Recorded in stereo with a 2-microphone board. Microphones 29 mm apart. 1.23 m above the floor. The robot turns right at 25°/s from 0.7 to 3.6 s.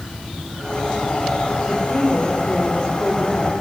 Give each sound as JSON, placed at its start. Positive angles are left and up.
{"t": 1.6, "sound": "a woman speaking", "azimuth_deg": 130, "distance_m": 4.5}